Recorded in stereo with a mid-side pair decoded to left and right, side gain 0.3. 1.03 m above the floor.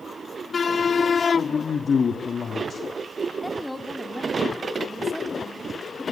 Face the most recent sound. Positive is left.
turn(degrees=5)